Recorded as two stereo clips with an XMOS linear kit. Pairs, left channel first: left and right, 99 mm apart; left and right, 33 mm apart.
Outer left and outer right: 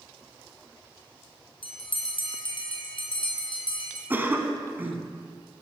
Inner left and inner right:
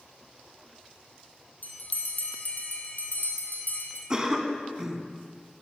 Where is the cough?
20° right (ahead or behind), 1.3 m.